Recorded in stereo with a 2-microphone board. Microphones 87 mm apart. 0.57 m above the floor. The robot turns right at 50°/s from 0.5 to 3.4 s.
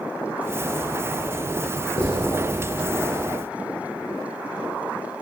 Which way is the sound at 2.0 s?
70° left (ahead or behind).